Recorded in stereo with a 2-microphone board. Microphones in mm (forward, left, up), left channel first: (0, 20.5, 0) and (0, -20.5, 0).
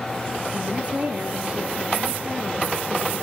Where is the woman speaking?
30° right (ahead or behind), 1.8 m.